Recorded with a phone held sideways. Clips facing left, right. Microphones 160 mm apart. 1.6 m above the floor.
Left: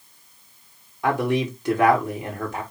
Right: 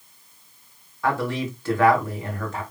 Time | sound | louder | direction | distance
1.0 | a man speaking | left 3 dB | 20° left (ahead or behind) | 4 m